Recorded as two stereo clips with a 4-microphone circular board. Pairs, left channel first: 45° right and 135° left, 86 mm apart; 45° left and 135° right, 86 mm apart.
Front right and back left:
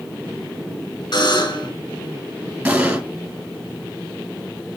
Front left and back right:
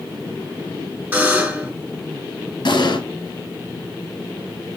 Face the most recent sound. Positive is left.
turn(degrees=60)